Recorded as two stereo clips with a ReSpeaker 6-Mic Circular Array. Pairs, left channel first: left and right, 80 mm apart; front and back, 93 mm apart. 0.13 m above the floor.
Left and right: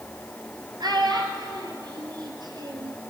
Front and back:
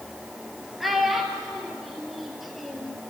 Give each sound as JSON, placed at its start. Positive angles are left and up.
{"t": 0.8, "sound": "a child speaking", "azimuth_deg": -90, "distance_m": 2.5}